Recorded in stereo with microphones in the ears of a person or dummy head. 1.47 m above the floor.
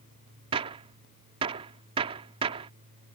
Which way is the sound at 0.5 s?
25° right (ahead or behind).